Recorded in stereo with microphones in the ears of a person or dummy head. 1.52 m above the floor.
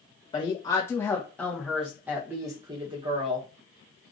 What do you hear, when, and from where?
0.3 s a woman speaking: 20° left (ahead or behind), 2 m; by 3.4 s 30° right (ahead or behind), 1.7 m